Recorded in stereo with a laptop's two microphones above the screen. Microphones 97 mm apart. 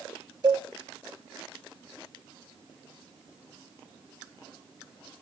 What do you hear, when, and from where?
0.4 s a cowbell: 45° right (ahead or behind), 1.2 m